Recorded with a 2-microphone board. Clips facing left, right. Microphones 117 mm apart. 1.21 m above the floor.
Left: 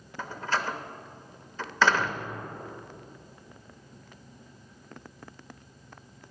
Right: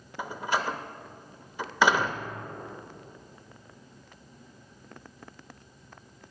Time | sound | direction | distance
0.2 | a door slam | 15° right (ahead or behind) | 0.8 m